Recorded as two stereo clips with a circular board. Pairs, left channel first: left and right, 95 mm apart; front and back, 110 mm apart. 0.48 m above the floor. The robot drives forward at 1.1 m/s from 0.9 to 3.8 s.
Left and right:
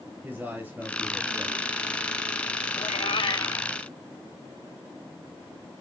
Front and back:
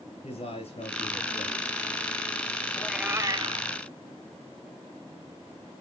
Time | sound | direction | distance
0.2 | a man speaking | 20° right | 6 m
2.8 | a cat meowing | 70° left | 0.6 m